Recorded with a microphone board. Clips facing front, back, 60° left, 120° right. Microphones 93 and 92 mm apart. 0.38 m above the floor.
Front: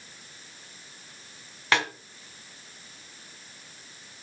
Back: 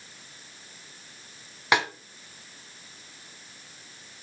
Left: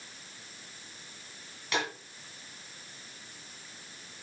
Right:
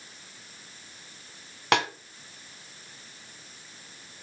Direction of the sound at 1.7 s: 105° right.